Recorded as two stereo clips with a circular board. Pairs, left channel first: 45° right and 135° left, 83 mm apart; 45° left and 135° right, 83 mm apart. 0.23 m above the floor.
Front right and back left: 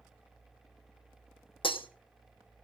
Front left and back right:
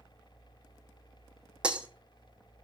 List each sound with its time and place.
1.6 s breaking glass: 55° right, 1.8 m